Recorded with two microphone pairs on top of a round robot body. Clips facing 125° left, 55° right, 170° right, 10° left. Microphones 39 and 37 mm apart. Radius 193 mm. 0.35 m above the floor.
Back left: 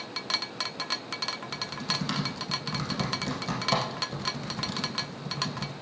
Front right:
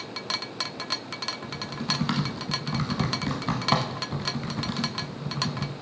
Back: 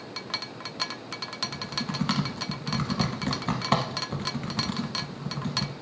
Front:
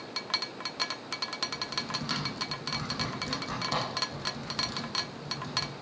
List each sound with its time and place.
1.4 s typing on a keyboard: 120° right, 0.7 m